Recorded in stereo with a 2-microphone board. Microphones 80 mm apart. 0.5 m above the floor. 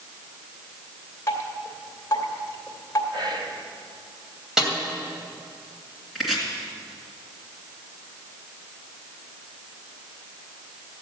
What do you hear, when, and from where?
1.3 s dripping: 35° left (ahead or behind), 2 m
3.1 s whispering: 65° right (ahead or behind), 1.9 m
4.6 s a snare drum: 10° right (ahead or behind), 2.5 m
6.2 s chopping: centre (ahead or behind), 2.5 m